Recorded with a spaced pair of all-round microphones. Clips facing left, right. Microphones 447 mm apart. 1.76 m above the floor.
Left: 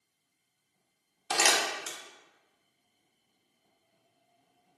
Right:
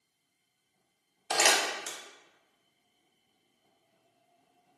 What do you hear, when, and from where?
1.3 s crumpling: 25° left (ahead or behind), 0.5 m